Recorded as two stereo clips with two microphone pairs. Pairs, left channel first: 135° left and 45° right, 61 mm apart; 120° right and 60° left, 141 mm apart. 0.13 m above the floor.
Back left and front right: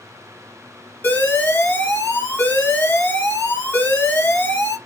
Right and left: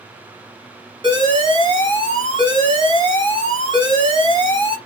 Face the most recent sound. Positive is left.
turn(degrees=95)